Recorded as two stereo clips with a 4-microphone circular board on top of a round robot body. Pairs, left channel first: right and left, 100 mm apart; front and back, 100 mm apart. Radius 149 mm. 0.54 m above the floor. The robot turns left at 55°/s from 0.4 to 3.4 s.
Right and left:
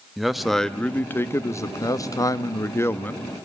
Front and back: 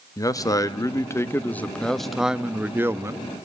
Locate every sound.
0.2 s a man speaking: straight ahead, 1.1 m; by 3.5 s 165° right, 1.1 m